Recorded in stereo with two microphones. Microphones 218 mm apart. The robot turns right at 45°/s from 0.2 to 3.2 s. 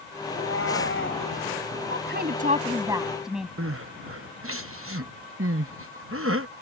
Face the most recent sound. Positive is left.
turn(degrees=-80)